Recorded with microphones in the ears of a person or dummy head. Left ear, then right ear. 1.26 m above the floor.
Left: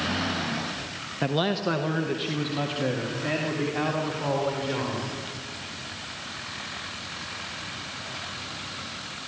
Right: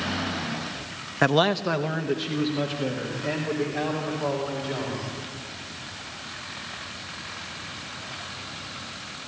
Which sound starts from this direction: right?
A man speaking, at 1.2 s.